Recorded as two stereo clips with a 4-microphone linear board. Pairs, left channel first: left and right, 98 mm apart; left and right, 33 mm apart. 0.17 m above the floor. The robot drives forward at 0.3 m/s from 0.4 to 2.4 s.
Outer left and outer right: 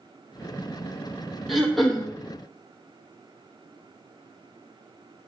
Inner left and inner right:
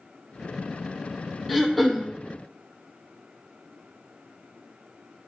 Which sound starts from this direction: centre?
Throat clearing, at 1.5 s.